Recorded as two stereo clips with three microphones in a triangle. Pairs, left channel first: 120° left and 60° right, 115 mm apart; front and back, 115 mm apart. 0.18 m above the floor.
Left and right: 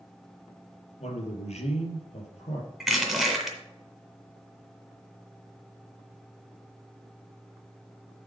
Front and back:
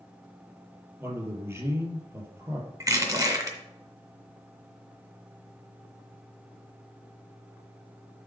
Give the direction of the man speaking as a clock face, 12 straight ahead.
8 o'clock.